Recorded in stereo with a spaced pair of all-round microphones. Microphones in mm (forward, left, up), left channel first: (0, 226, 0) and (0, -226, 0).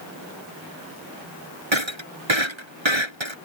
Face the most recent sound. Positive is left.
turn(degrees=-80)